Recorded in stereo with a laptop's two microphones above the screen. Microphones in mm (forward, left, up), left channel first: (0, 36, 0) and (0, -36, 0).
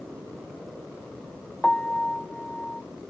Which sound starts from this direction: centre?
A piano, at 1.6 s.